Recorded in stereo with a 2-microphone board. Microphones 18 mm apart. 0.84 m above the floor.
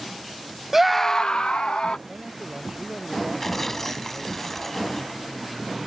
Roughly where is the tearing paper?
Left.